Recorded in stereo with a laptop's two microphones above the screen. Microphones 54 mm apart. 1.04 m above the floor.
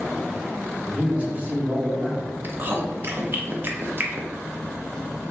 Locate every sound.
0.8 s a man speaking: 25° right (ahead or behind), 1.1 m
2.4 s chewing: 40° right (ahead or behind), 0.5 m